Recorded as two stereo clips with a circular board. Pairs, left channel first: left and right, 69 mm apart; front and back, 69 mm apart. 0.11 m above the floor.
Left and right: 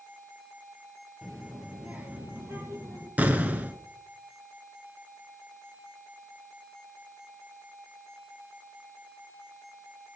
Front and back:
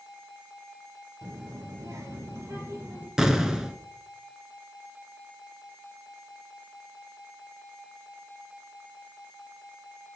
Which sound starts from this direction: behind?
A child speaking, at 1.2 s.